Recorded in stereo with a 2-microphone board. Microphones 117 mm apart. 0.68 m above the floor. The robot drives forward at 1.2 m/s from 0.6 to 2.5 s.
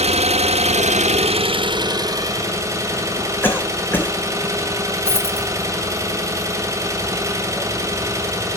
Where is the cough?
15° left (ahead or behind), 3 m.